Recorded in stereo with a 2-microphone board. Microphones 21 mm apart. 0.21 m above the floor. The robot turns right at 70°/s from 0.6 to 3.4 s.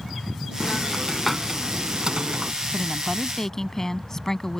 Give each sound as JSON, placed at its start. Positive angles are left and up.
{"t": 0.6, "sound": "a hiss", "azimuth_deg": 140}
{"t": 2.7, "sound": "a woman speaking", "azimuth_deg": -15}